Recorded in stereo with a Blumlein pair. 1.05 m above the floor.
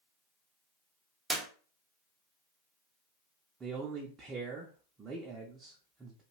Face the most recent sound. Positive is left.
turn(degrees=-20)